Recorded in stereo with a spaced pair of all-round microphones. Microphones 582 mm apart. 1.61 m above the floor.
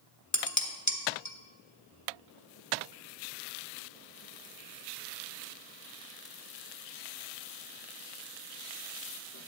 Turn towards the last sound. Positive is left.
turn(degrees=30)  # may be behind; listen again after turning